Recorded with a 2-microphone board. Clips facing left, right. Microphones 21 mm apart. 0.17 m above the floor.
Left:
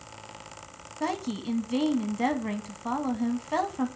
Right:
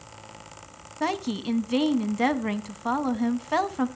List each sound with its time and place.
1.0 s a woman speaking: 20° right (ahead or behind), 1.0 m